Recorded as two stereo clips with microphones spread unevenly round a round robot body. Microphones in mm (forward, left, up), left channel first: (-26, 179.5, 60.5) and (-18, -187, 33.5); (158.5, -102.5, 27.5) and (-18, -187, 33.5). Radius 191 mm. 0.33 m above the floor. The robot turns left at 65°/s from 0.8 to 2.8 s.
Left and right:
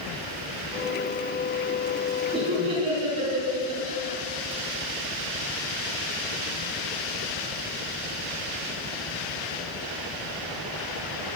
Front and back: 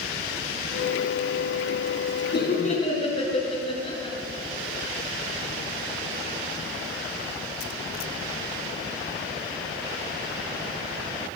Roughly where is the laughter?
Ahead.